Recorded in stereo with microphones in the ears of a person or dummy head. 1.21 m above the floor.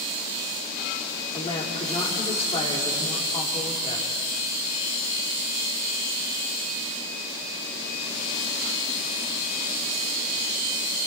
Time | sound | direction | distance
1.3 | a woman speaking | 30° left (ahead or behind) | 3.5 m